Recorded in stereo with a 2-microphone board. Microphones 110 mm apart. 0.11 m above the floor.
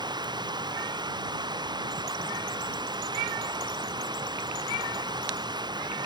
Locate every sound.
0.0 s running water: 40° right (ahead or behind)